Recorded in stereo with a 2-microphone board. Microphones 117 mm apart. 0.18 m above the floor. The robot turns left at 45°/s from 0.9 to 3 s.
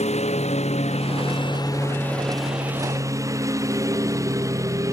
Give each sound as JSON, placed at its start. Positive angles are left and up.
{"t": 0.0, "sound": "a lawn mower", "azimuth_deg": 65}